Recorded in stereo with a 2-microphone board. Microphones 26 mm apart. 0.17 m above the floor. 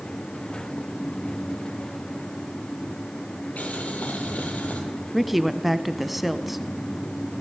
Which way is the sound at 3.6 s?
60° left (ahead or behind).